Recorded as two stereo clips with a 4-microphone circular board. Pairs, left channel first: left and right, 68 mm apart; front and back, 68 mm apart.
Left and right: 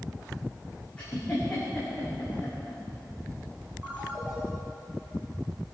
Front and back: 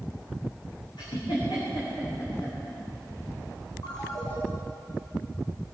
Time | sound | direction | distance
1.0 | a giggle | 15° left | 9 m
3.8 | a ringtone | 15° right | 5 m